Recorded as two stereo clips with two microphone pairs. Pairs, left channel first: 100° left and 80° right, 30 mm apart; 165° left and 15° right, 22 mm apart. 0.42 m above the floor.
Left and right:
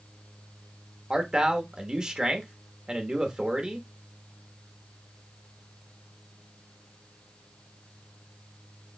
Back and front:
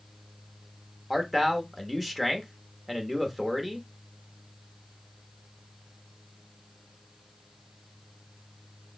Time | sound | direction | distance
1.1 | a man speaking | 100° right | 0.9 m